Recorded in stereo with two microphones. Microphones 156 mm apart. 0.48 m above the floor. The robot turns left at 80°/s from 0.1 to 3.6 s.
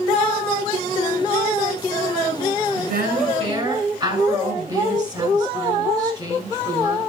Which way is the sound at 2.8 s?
85° right.